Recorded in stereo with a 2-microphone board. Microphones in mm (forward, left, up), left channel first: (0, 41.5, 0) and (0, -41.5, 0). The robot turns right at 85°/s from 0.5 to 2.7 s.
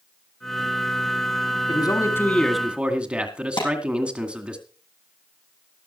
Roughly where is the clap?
Left.